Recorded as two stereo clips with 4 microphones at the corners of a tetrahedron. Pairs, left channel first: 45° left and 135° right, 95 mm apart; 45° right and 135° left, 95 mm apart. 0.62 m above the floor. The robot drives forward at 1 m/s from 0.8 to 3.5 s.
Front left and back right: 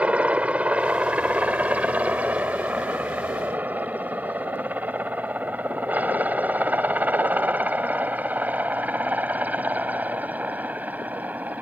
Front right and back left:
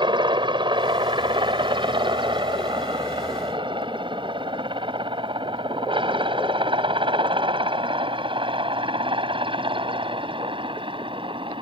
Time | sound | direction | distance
0.0 | a helicopter | 150° left | ?